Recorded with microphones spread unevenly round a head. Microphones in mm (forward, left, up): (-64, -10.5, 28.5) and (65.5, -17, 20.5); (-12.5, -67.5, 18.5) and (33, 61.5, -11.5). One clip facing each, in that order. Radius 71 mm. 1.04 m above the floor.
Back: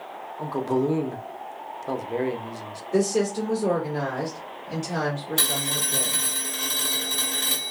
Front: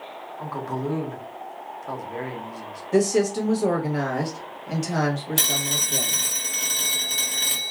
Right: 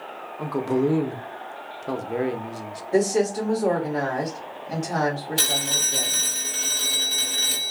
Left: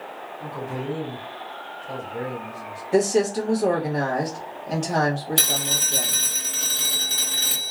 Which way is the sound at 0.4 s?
120° right.